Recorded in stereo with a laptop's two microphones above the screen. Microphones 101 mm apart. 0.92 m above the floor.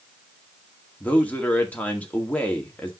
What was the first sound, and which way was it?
A man speaking, 15° left (ahead or behind).